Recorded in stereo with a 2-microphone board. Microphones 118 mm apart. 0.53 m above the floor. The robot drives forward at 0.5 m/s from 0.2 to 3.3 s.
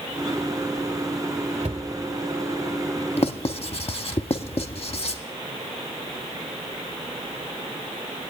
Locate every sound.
1.6 s a cupboard door: 80° right, 1.5 m
3.2 s writing: 55° left (ahead or behind), 0.5 m